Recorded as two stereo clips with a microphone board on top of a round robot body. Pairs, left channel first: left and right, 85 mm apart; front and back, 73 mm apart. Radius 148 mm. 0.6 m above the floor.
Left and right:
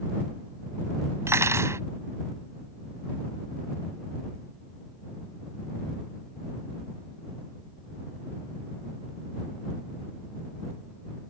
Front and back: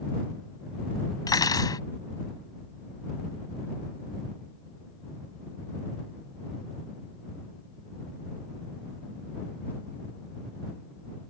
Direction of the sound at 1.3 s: 30° right.